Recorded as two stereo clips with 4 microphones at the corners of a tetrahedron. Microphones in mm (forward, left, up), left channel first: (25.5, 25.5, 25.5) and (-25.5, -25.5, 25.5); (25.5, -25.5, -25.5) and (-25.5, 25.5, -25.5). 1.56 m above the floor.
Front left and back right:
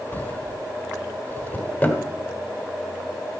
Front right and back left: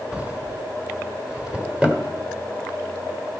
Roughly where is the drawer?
Left.